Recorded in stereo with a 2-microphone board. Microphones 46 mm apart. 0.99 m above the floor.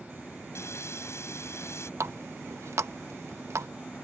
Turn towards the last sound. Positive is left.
turn(degrees=-80)